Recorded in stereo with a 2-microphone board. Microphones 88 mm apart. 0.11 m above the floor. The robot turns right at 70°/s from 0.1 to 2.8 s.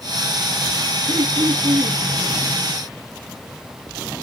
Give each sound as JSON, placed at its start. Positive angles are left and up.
{"t": 1.1, "sound": "throat clearing", "azimuth_deg": -115, "distance_m": 1.3}